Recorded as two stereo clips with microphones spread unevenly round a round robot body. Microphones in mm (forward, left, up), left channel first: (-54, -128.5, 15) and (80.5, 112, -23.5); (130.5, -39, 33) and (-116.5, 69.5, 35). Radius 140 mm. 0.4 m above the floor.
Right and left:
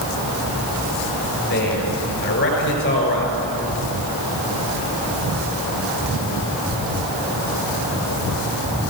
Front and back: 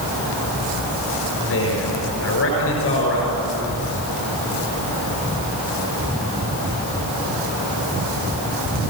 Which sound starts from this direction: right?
A man speaking, at 1.5 s.